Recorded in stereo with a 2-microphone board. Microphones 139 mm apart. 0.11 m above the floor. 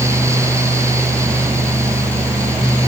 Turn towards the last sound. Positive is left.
No sound to turn to.